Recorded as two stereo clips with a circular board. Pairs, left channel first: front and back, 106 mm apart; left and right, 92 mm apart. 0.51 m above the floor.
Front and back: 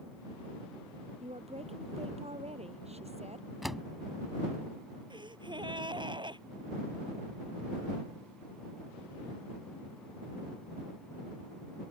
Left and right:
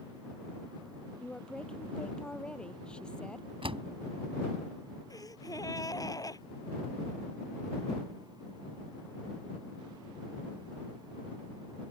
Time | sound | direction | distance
1.2 | a woman speaking | 170° left | ?
3.6 | a door slam | 90° right | ?
5.1 | a gasp | 140° left | ?